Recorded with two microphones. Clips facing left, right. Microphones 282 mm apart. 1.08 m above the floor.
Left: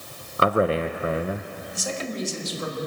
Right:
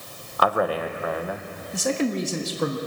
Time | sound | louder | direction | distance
0.4 | a man speaking | left 2 dB | 25° left (ahead or behind) | 0.5 m
1.7 | a man speaking | right 7 dB | 65° right (ahead or behind) | 1.4 m